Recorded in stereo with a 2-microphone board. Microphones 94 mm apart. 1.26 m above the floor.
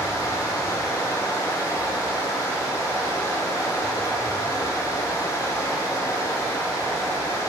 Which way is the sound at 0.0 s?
35° left (ahead or behind).